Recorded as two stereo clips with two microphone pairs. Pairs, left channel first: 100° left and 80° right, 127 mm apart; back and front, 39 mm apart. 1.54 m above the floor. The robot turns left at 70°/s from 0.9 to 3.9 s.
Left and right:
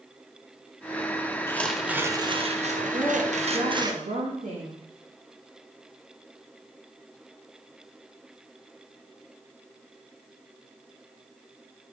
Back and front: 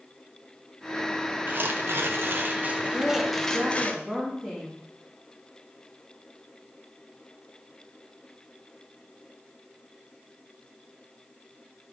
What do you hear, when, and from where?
1.5 s tearing paper: 30° left, 0.8 m; by 3.9 s 140° right, 0.8 m
2.9 s a woman speaking: 20° right, 2.0 m; by 4.8 s 90° right, 2.0 m